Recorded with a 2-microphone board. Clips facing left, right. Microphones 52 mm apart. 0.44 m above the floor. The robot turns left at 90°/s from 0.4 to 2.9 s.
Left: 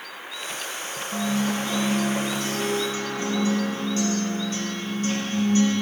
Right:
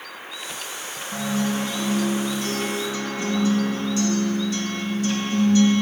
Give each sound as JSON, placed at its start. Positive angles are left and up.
{"t": 1.1, "sound": "a guitar", "azimuth_deg": -155, "distance_m": 4.5}